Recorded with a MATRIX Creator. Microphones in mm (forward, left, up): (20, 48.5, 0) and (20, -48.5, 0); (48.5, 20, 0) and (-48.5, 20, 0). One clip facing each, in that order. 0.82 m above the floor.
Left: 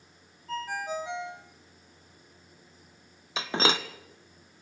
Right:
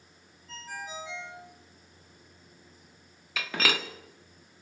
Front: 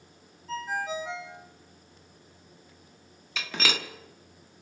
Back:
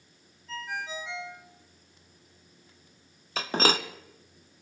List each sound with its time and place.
0.5 s a ringtone: 55° left, 2.5 m
3.4 s breaking glass: 145° left, 1.0 m